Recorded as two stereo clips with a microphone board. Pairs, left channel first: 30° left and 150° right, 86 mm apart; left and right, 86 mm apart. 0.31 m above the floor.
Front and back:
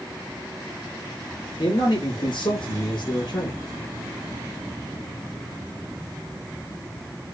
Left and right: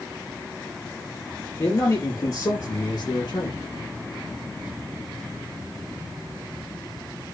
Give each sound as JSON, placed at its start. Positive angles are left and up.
{"t": 1.6, "sound": "a man speaking", "azimuth_deg": 40, "distance_m": 6.5}